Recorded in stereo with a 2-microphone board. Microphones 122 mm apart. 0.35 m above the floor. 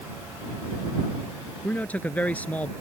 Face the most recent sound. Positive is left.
turn(degrees=15)  # may be behind; listen again after turning